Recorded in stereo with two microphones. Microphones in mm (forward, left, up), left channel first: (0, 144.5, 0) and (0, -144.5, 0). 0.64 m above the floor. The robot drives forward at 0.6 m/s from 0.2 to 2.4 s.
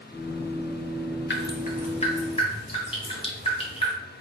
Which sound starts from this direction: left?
Dripping, at 1.3 s.